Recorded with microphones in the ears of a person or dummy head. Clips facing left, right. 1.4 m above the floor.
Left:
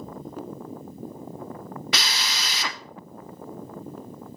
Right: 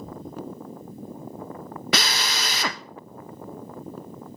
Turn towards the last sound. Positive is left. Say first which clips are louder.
# right 6 dB
turn(degrees=-45)  # may be behind; listen again after turning